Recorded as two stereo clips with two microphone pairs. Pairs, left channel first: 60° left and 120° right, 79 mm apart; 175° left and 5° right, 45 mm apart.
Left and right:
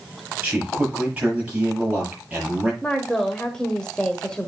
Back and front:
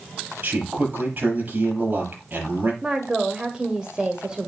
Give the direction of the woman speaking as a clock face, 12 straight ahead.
12 o'clock.